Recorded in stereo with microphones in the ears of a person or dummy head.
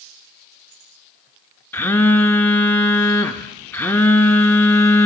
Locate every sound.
1.7 s a phone buzzing: 10° left (ahead or behind), 0.6 m